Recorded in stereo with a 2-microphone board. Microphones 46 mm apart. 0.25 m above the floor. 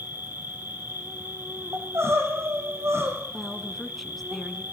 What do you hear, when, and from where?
0.0 s an insect: 50° right (ahead or behind), 2.5 m
1.7 s crying: 80° right, 5.5 m
3.3 s a woman speaking: centre (ahead or behind), 2 m